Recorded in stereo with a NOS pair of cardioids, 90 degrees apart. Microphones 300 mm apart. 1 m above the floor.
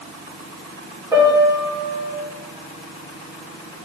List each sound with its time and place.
1.1 s a piano: 15° right, 3 m